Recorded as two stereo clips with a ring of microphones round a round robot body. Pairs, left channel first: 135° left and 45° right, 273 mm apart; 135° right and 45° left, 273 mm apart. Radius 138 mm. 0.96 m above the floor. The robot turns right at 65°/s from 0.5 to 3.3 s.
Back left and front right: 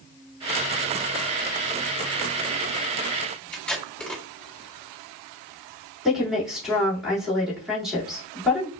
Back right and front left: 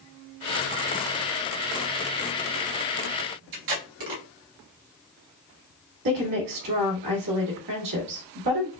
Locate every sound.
3.5 s tape being pulled: 50° left, 1.4 m
6.0 s a woman speaking: 45° left, 1.9 m